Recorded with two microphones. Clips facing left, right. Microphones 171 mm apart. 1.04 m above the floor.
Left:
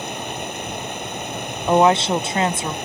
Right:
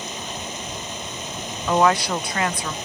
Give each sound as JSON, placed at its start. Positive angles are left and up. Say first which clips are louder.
{"t": 0.0, "sound": "running water", "louder": "left 4 dB", "side_deg": 60}
{"t": 1.7, "sound": "a woman speaking", "louder": "left 4 dB", "side_deg": 25}